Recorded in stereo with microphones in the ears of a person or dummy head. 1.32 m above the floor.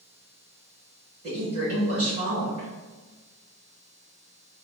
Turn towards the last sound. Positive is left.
turn(degrees=-35)  # may be behind; listen again after turning